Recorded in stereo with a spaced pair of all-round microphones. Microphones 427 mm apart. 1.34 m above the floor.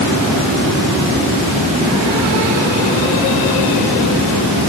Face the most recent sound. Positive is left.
No sound to turn to.